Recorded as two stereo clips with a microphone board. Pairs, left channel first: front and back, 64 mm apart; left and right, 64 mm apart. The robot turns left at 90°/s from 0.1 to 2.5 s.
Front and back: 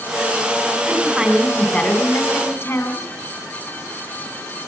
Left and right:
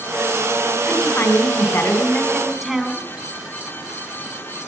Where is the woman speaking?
145° left, 1.9 m; by 3.0 s straight ahead, 1.9 m.